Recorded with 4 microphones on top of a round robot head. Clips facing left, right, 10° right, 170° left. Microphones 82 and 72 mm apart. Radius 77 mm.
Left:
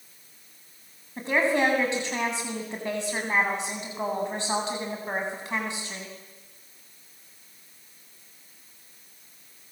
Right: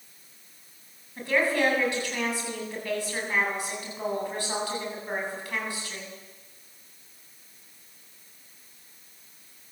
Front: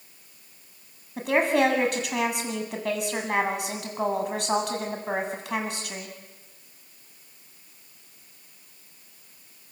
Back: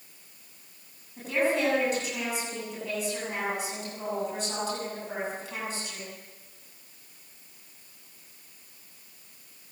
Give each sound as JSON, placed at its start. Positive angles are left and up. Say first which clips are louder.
{"t": 1.2, "sound": "a woman speaking", "louder": "left 1 dB, front 5 dB", "azimuth_deg": 20, "distance_m": 8.0}